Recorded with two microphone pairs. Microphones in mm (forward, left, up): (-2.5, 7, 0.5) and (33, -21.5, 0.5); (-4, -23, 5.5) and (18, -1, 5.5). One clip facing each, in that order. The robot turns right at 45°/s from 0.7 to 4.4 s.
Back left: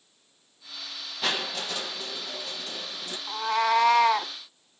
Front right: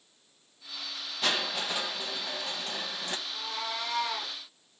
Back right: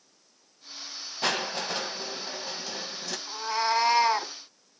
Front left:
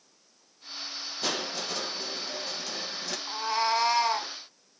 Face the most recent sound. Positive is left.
turn(degrees=170)